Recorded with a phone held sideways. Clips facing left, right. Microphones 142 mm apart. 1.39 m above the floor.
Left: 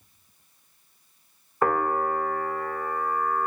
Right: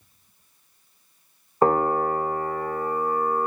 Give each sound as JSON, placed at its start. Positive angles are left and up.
{"t": 1.6, "sound": "a piano", "side_deg": -30, "distance_m": 1.1}